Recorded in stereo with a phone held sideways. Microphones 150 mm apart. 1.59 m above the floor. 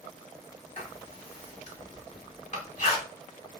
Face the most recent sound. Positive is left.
turn(degrees=50)  # may be behind; listen again after turning